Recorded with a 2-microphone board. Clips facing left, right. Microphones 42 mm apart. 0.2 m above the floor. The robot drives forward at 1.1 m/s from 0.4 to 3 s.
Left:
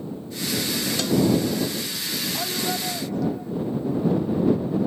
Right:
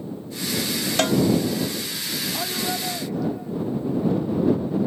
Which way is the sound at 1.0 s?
50° right (ahead or behind).